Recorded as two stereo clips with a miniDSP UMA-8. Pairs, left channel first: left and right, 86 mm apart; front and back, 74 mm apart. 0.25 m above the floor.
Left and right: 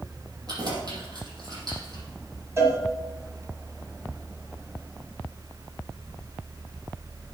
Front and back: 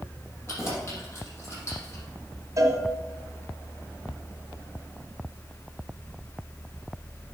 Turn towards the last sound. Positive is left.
turn(degrees=-140)